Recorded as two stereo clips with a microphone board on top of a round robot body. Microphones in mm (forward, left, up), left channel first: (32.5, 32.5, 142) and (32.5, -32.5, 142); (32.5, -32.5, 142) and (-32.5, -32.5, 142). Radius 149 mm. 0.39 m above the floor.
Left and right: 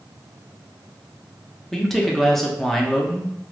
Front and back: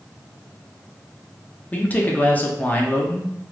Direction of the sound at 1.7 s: 10° left.